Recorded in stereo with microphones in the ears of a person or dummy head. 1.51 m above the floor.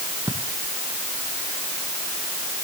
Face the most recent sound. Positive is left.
turn(degrees=-15)  # may be behind; listen again after turning